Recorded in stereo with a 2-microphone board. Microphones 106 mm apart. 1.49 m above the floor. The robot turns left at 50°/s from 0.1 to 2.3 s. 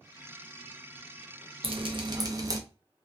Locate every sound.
1.6 s dripping: 110° right, 0.5 m; by 2.6 s 145° right, 0.5 m